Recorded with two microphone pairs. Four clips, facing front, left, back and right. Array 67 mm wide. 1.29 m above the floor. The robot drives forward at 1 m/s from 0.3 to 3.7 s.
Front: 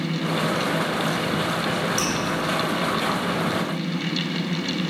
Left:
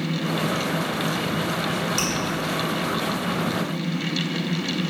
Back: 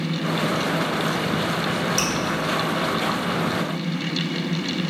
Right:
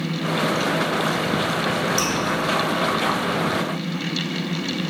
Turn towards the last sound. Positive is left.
turn(degrees=170)